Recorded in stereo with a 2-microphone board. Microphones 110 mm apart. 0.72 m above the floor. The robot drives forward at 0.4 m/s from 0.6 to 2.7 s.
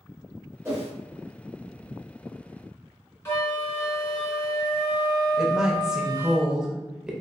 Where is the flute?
20° left (ahead or behind), 1.0 m.